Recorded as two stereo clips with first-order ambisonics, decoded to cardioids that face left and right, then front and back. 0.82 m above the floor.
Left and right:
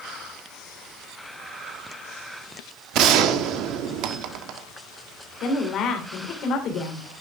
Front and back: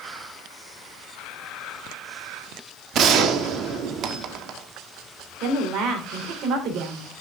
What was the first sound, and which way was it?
A gunshot, 130° right.